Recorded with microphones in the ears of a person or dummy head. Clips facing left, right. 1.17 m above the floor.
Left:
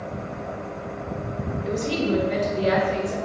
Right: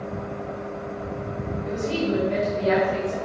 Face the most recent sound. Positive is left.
turn(degrees=40)  # may be behind; listen again after turning